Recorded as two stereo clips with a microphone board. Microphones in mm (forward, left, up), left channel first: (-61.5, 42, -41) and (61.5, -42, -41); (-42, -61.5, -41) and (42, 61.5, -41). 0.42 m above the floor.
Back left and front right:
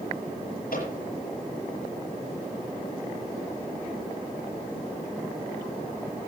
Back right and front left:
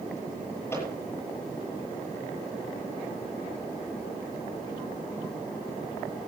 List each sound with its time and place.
0.7 s a microwave: 165° left, 8 m